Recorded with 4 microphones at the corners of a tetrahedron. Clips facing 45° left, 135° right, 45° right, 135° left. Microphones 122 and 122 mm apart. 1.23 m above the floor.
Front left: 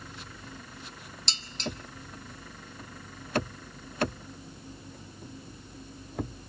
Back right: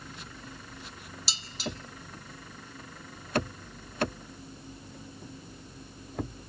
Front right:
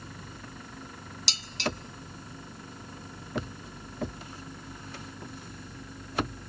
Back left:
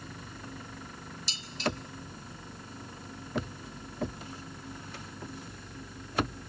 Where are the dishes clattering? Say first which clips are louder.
Front left 1 dB, even; 55° right, 1.6 m.